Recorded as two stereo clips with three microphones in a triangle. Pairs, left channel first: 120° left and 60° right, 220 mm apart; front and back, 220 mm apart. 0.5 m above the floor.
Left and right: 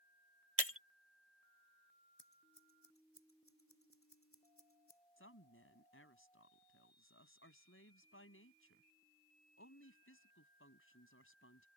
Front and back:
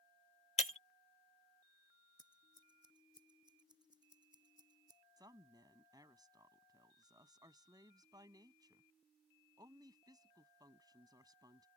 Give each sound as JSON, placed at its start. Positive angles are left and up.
{"t": 0.6, "sound": "breaking glass", "azimuth_deg": -60}
{"t": 2.2, "sound": "scissors", "azimuth_deg": 110}
{"t": 5.2, "sound": "a woman speaking", "azimuth_deg": 110}